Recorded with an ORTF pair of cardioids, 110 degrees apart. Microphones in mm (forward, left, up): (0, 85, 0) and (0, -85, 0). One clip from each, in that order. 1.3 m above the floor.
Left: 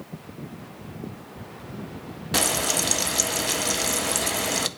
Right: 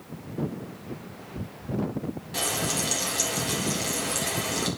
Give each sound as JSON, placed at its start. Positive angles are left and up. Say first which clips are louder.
{"t": 2.3, "sound": "frying", "louder": "left 5 dB", "azimuth_deg": 60, "distance_m": 0.7}